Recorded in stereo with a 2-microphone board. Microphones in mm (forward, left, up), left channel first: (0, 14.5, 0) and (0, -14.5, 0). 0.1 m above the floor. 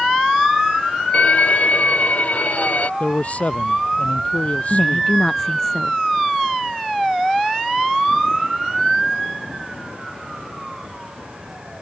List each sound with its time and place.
1.1 s a violin: 55° left (ahead or behind)
3.0 s a man speaking: 55° left (ahead or behind)
4.7 s a woman speaking: 15° left (ahead or behind)